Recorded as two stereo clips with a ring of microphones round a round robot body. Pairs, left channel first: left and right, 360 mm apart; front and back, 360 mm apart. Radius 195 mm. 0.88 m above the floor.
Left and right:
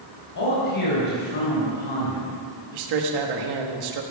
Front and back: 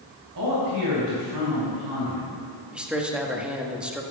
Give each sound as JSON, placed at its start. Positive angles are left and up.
{"t": 0.3, "sound": "a man speaking", "azimuth_deg": 125, "distance_m": 4.0}
{"t": 2.7, "sound": "a man speaking", "azimuth_deg": -95, "distance_m": 1.4}